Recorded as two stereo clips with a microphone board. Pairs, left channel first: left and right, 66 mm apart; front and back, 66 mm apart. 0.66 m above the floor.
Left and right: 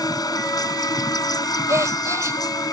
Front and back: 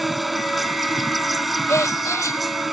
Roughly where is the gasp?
Ahead right.